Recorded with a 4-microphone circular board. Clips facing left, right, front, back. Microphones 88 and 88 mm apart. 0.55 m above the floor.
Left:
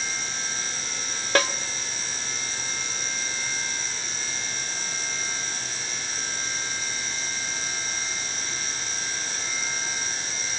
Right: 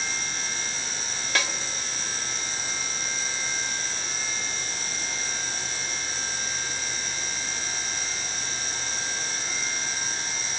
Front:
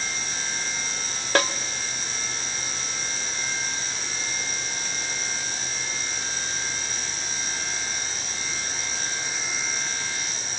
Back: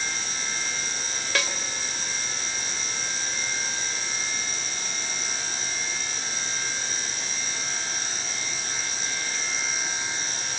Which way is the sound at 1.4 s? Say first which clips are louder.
Left 6 dB, front 7 dB; 45° left.